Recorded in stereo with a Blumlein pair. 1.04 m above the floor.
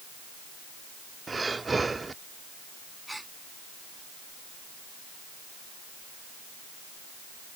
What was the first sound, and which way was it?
Breathing, 10° right.